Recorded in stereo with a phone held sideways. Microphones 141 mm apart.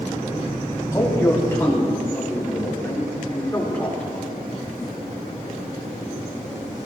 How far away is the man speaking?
About 3 m.